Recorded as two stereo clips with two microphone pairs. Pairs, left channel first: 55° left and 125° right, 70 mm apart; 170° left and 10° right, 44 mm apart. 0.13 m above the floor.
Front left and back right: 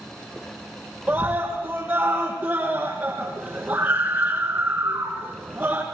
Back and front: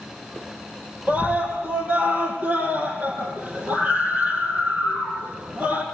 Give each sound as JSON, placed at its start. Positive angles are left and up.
{"t": 1.1, "sound": "a scream", "azimuth_deg": -55, "distance_m": 6.0}